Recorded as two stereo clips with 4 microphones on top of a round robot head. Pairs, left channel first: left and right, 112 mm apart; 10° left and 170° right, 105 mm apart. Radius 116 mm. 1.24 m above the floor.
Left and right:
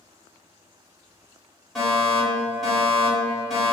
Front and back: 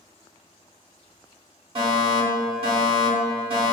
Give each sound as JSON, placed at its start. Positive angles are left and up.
{"t": 1.8, "sound": "a fire alarm", "azimuth_deg": 180, "distance_m": 1.8}